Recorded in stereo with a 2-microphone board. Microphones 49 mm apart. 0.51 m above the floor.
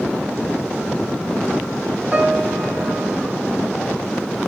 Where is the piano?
30° right (ahead or behind), 2 m.